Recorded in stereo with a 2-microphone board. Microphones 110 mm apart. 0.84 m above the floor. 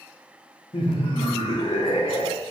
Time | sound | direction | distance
0.7 | laughter | 50° left (ahead or behind) | 0.5 m